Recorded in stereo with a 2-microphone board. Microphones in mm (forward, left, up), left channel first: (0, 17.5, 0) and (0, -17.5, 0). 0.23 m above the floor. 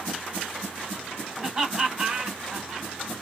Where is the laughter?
15° right (ahead or behind), 1.3 m.